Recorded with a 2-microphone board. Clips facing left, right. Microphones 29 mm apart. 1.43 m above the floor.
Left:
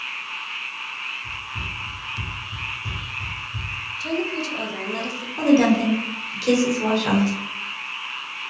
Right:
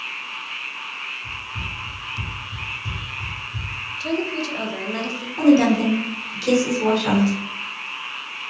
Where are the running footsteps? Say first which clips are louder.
Even; 5° left (ahead or behind), 1.8 m.